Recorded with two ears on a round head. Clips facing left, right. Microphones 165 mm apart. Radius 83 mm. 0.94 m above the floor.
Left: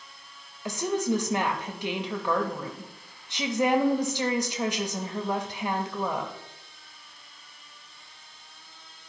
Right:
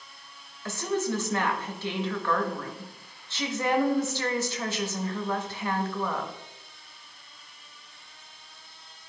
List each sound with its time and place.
0.7 s a woman speaking: 15° left (ahead or behind), 1.0 m